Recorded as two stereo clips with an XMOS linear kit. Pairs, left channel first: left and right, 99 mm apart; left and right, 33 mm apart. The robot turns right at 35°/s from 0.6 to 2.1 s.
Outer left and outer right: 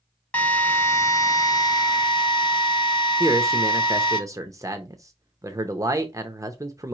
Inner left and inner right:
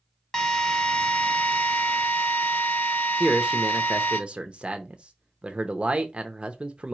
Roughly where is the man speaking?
Right.